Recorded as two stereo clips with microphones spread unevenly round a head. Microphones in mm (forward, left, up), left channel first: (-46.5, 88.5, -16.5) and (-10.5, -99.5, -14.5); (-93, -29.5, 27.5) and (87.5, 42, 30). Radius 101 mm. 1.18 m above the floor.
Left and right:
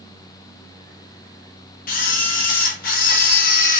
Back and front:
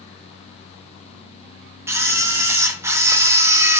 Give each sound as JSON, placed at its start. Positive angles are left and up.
{"t": 1.9, "sound": "a camera shutter", "azimuth_deg": 95, "distance_m": 0.5}